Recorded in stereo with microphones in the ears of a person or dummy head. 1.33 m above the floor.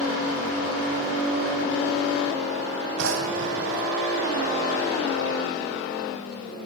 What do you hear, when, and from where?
3.0 s a drawer: 75° right (ahead or behind), 4 m